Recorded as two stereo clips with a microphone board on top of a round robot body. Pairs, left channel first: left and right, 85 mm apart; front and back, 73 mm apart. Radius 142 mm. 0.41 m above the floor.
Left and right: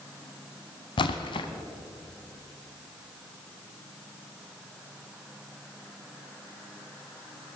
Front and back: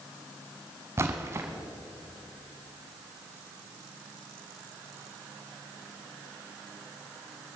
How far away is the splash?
About 0.6 m.